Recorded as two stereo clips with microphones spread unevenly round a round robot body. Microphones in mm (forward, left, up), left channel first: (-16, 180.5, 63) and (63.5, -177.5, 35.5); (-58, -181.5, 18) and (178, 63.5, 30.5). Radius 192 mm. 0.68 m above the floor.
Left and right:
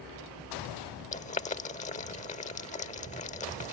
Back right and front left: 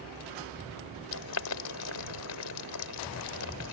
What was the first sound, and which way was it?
Boiling, 175° left.